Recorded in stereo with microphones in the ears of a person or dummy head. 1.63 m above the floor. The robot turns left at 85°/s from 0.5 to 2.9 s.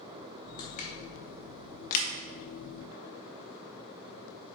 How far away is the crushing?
About 0.8 m.